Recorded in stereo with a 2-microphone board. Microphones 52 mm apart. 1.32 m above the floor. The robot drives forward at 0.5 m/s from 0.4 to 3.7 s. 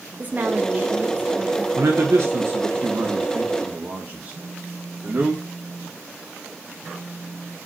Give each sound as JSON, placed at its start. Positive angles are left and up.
{"t": 0.2, "sound": "a woman speaking", "side_deg": -30, "distance_m": 1.4}
{"t": 1.8, "sound": "a man speaking", "side_deg": -55, "distance_m": 1.4}
{"t": 4.3, "sound": "a phone buzzing", "side_deg": -45, "distance_m": 3.5}